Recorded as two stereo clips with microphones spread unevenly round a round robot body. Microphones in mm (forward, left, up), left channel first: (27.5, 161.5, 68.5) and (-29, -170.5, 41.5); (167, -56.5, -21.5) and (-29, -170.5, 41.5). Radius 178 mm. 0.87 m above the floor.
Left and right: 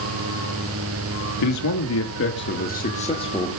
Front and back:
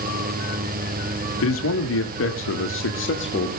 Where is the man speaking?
45° left, 1.6 m; by 3.6 s straight ahead, 2 m.